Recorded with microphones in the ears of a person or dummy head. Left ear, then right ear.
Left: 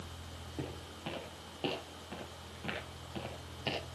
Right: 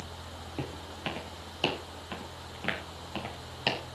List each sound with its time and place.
0.6 s footsteps: 65° right (ahead or behind), 5.5 m; by 3.8 s 35° right (ahead or behind), 5 m